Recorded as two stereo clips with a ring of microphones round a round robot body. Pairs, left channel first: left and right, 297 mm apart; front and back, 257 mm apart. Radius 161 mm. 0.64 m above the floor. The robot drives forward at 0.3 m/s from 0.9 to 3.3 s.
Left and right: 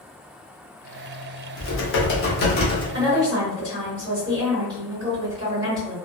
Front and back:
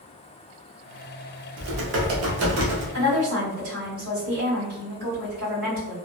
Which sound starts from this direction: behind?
A woman speaking, at 2.9 s.